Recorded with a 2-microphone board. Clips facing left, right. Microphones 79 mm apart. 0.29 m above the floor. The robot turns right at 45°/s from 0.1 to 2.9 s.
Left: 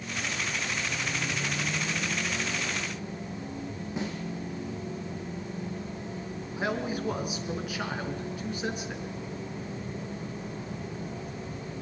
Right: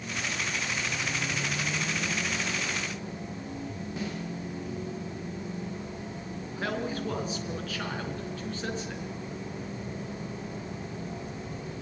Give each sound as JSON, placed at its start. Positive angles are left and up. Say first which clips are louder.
{"t": 4.0, "sound": "a snare drum", "louder": "left 2 dB", "side_deg": 20, "distance_m": 9.0}
{"t": 6.6, "sound": "a man speaking", "louder": "left 2 dB", "side_deg": 15, "distance_m": 4.5}